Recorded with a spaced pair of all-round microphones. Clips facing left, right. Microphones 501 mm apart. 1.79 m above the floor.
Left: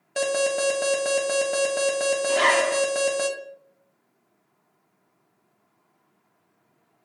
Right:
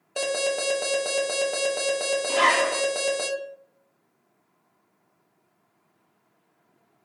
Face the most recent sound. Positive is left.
turn(degrees=-30)  # may be behind; listen again after turning